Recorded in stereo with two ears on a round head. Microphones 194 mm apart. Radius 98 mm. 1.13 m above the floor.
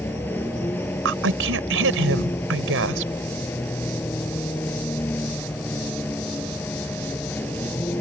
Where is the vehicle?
10° left (ahead or behind).